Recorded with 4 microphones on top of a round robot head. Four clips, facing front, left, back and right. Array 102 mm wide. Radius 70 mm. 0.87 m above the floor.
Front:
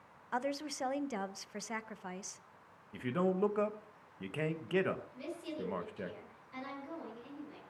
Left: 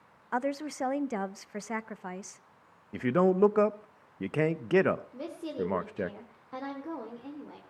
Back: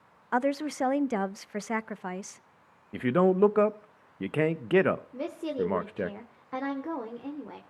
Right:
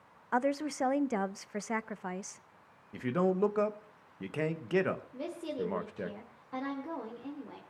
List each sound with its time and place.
0.3 s a woman speaking: 175° right, 0.6 m
2.9 s a man speaking: 150° left, 0.9 m
5.1 s a woman speaking: 175° left, 2.5 m